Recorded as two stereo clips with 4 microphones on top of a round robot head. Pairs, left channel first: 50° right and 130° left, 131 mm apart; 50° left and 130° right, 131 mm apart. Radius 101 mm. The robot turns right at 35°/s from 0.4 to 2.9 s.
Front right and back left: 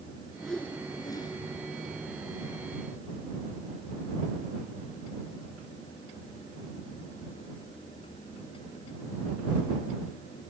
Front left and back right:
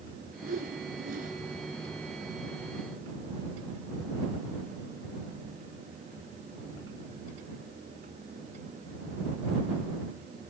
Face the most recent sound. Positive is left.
turn(degrees=-50)